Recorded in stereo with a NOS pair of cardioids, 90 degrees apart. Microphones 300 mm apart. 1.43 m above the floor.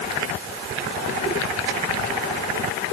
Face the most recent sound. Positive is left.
No sound to turn to.